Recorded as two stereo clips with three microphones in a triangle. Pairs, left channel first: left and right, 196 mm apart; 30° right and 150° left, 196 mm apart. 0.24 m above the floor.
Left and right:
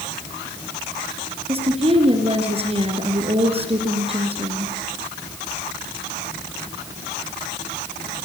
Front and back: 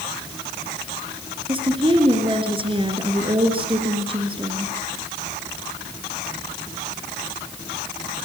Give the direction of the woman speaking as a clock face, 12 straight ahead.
5 o'clock.